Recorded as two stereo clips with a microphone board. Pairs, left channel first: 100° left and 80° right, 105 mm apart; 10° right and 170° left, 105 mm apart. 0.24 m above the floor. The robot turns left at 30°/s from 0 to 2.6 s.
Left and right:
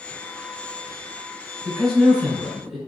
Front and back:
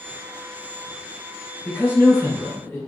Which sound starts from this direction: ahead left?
A man speaking, at 1.6 s.